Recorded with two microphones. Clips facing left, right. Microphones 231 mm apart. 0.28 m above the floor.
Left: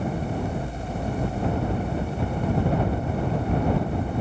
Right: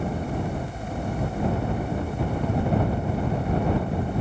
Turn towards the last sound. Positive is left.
No sound to turn to.